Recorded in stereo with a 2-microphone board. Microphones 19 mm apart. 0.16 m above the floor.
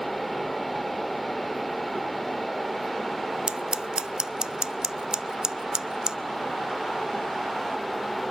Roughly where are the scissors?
Right.